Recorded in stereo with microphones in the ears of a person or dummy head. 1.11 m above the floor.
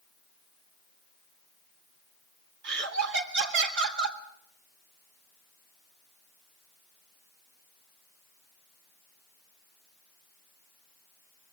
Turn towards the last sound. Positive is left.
turn(degrees=-60)  # may be behind; listen again after turning